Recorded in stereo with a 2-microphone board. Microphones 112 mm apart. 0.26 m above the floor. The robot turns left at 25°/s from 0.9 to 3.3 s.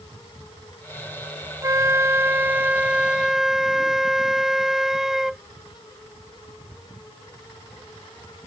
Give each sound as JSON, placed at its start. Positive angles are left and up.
{"t": 1.6, "sound": "a flute", "azimuth_deg": -130}